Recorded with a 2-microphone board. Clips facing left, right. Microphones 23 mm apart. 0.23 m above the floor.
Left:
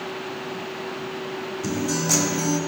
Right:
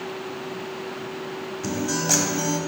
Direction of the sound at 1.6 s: 20° right (ahead or behind).